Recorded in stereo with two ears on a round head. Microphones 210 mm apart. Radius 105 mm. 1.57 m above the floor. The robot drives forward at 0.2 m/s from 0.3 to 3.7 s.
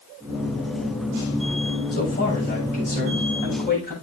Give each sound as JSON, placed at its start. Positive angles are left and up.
{"t": 1.9, "sound": "a man speaking", "side_deg": 40, "distance_m": 7.0}